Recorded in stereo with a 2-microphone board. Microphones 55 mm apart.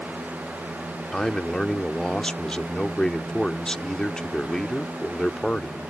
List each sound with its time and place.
1.1 s a man speaking: 10° left (ahead or behind)